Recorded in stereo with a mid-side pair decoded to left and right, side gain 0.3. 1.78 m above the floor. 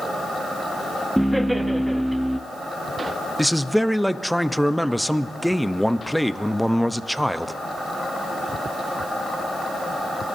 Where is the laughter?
10° right, 1.0 m.